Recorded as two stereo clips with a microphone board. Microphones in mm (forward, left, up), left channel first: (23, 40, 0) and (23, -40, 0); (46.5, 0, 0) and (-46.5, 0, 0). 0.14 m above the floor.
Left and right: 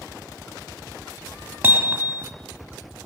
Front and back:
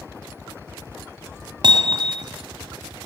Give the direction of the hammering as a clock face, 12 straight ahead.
5 o'clock.